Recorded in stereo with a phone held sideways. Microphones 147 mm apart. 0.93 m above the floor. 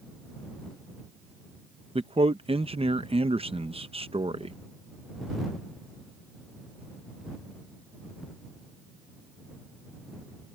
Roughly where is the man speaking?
Right.